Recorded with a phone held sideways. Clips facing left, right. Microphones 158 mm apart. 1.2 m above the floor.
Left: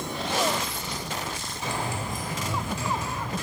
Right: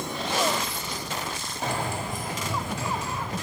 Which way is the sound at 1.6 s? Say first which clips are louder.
Right 2 dB; 55° right (ahead or behind).